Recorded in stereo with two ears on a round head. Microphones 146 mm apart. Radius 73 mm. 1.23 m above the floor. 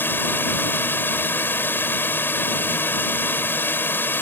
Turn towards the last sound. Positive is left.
turn(degrees=15)  # may be behind; listen again after turning